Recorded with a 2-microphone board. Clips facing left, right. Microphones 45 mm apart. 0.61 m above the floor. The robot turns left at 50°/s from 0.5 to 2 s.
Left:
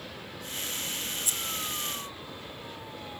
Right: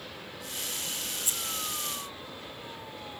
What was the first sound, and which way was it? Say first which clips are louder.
Scissors: left 1 dB; 35° right (ahead or behind).